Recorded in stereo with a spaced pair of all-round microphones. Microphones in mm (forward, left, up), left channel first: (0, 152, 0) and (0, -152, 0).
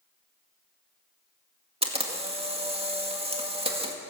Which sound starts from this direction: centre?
A camera shutter, at 1.8 s.